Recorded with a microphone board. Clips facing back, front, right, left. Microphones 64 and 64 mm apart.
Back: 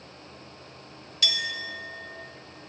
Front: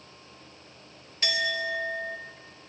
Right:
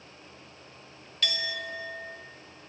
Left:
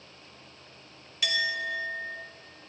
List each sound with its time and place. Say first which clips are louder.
1.2 s a clink: front 3 dB, left 4 dB; 15° left, 0.6 m